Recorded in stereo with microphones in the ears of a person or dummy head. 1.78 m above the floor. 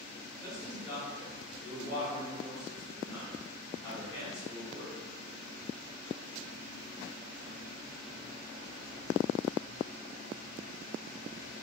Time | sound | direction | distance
0.4 | a man speaking | 30° left (ahead or behind) | 1.0 m